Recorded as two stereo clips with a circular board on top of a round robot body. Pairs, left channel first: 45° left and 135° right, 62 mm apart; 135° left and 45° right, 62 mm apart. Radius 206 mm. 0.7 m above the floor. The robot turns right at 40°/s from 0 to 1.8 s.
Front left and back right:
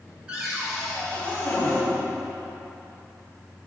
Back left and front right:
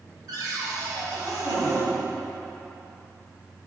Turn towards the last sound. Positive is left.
turn(degrees=0)